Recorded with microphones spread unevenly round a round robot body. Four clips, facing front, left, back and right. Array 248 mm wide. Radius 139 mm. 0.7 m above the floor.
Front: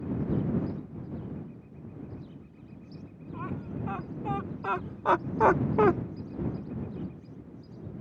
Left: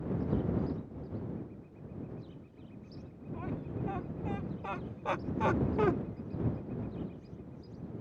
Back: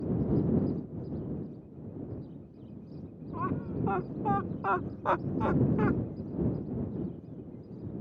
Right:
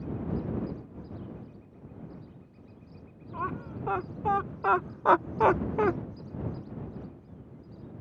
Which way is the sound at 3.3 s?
115° right.